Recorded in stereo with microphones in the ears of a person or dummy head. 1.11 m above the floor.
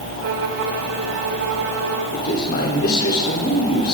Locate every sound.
0.2 s a violin: 85° right, 3.5 m
2.1 s a man speaking: 50° left (ahead or behind), 3.5 m